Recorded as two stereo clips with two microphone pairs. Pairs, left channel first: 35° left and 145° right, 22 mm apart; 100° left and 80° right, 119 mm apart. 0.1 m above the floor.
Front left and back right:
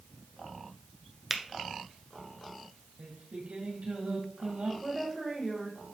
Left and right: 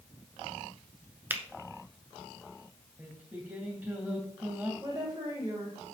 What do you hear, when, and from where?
1.3 s a finger snap: 60° right, 0.9 m
3.0 s singing: 155° right, 2 m
4.8 s a woman speaking: 25° right, 5 m